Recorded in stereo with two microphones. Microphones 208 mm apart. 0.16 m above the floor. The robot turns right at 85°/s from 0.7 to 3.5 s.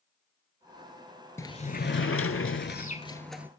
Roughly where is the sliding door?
Ahead.